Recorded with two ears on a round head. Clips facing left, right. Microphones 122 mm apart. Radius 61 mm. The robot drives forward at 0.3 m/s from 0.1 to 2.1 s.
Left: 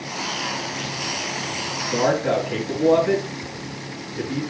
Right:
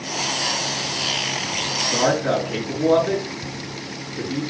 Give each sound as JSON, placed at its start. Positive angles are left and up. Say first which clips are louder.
{"t": 1.9, "sound": "a man speaking", "louder": "even", "side_deg": 20, "distance_m": 4.0}